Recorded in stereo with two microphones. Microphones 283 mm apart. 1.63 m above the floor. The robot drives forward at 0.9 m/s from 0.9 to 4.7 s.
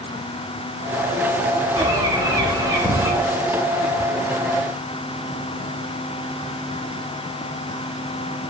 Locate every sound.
1.8 s a bird: 15° right (ahead or behind), 4 m; by 3.1 s 10° right (ahead or behind), 5.5 m